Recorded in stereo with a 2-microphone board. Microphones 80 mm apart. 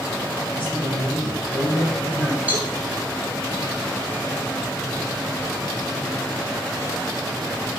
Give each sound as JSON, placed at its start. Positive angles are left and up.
{"t": 0.5, "sound": "a man speaking", "side_deg": 85, "distance_m": 4.0}
{"t": 2.5, "sound": "a cowbell", "side_deg": -20, "distance_m": 3.0}